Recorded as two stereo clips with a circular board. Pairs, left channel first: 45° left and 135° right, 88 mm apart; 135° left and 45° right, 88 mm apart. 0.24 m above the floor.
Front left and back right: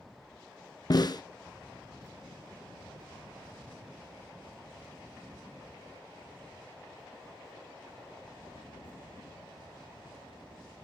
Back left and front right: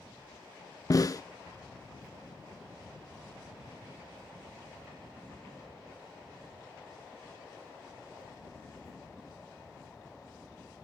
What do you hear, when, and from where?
0.9 s a snare drum: 85° left, 0.5 m